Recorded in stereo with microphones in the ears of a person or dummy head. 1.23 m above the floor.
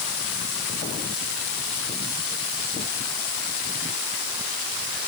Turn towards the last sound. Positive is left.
No sound to turn to.